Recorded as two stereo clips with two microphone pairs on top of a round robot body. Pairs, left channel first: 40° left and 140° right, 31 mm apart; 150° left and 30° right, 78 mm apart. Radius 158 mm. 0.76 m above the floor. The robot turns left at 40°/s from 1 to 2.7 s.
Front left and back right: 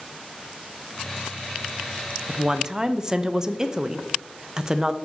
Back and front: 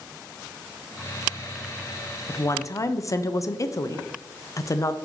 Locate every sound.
2.3 s a woman speaking: 170° right, 0.6 m; by 5.0 s 170° left, 0.6 m